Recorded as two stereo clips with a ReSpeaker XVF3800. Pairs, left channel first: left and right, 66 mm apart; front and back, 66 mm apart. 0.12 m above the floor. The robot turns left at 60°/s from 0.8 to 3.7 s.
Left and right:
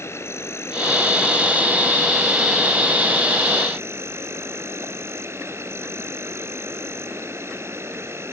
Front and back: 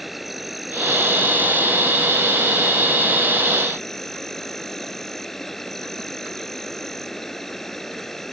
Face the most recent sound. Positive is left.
turn(degrees=-80)